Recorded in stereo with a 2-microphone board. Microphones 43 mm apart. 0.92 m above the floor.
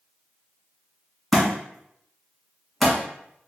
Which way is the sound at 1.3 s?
5° left (ahead or behind).